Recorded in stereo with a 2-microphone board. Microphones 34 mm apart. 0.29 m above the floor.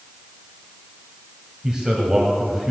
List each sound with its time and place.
1.6 s a man speaking: 20° right (ahead or behind), 2.0 m